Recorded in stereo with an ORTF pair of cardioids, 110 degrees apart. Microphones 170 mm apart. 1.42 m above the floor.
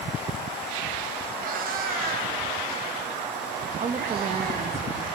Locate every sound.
1.4 s a cat meowing: 55° right, 3.5 m; by 4.7 s 65° right, 5 m
3.8 s a woman speaking: 40° right, 1.8 m